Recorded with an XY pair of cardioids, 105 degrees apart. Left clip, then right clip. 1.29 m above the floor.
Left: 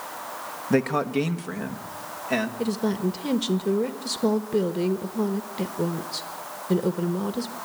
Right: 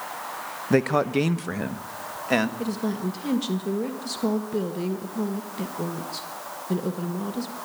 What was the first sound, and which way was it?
A man speaking, 15° right.